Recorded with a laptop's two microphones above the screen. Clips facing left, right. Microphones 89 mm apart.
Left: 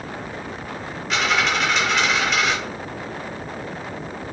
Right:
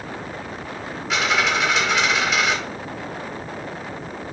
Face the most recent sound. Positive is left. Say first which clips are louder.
# even
turn(degrees=0)  # may be behind; listen again after turning